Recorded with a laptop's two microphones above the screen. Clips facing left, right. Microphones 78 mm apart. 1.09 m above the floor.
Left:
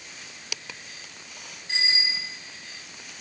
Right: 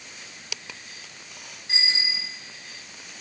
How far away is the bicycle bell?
About 6.5 m.